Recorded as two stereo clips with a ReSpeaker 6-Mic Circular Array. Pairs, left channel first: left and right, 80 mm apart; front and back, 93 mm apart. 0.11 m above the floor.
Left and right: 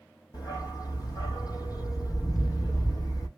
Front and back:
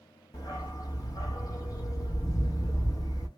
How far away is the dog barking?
About 1.3 m.